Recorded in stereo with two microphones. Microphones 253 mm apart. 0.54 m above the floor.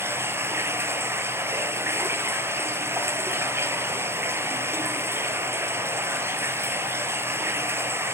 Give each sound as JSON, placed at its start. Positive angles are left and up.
{"t": 0.0, "sound": "running water", "side_deg": -10, "distance_m": 0.9}